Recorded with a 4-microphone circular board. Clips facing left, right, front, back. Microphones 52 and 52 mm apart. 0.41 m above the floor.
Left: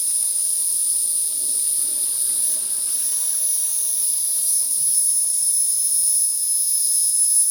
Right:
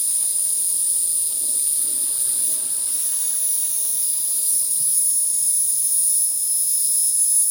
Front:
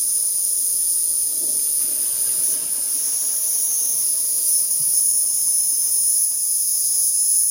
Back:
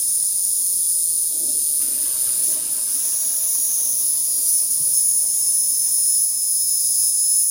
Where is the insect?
5° right, 1.0 m.